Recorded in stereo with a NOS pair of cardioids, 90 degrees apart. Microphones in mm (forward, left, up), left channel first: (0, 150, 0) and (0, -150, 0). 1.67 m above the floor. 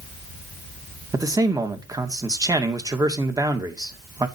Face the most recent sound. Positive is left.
turn(degrees=-10)